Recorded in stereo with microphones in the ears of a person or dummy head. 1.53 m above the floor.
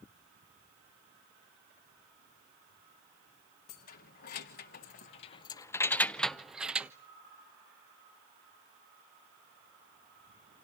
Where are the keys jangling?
45° left (ahead or behind), 1.1 m; by 6.9 s 10° right (ahead or behind), 1.0 m.